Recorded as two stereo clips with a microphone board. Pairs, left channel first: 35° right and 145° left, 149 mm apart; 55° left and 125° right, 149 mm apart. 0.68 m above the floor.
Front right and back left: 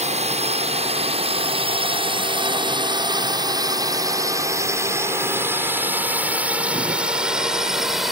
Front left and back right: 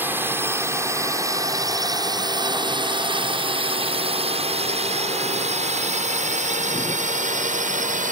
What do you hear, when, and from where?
0.0 s a drone: 165° left; by 8.1 s 125° right